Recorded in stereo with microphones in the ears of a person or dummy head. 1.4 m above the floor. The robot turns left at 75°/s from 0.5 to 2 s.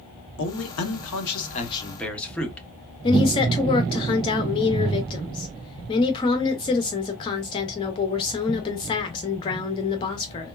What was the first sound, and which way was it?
A man speaking, 120° left.